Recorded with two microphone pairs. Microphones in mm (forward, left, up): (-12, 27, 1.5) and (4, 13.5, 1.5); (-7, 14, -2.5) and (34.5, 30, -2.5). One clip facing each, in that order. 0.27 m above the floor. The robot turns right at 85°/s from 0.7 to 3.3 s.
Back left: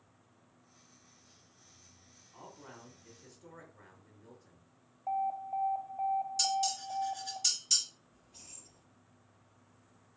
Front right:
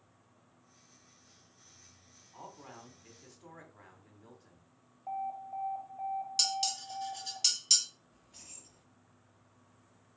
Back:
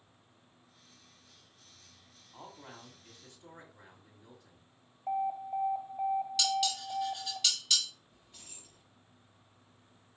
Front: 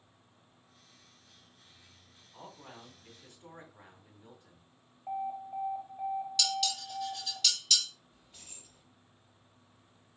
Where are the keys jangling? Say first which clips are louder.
Front right 1 dB, even; 55° right, 3.5 m.